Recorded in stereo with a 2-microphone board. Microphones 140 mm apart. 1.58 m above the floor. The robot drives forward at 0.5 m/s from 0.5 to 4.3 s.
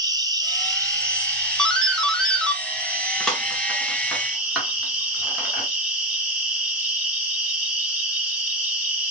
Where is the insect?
25° right (ahead or behind), 1.0 m; by 9.1 s 10° right (ahead or behind), 3 m.